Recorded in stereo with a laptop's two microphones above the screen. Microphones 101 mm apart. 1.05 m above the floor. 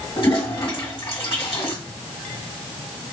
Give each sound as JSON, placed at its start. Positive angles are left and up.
{"t": 0.2, "sound": "a toilet flushing", "side_deg": 60, "distance_m": 1.6}